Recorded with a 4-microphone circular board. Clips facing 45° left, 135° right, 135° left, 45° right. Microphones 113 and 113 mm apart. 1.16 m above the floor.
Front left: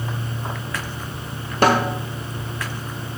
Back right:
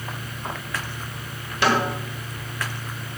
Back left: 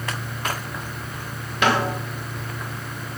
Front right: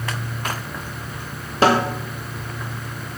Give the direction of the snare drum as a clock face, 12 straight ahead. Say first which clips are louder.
Front left 4 dB, front right 4 dB; 12 o'clock.